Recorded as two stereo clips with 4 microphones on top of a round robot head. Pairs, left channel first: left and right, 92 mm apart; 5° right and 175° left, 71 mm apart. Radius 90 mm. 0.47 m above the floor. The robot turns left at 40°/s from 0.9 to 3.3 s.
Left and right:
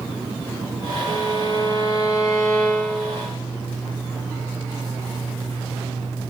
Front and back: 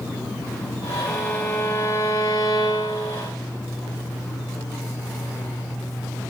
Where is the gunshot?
No gunshot in this recording.